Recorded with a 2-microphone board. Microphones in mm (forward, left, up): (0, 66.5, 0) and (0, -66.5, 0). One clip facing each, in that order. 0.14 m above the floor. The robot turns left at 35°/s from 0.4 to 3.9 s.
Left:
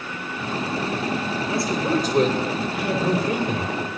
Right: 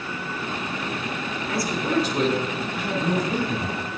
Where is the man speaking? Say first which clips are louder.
Left 1 dB; 155° left, 4 m; by 3.8 s 75° left, 4 m.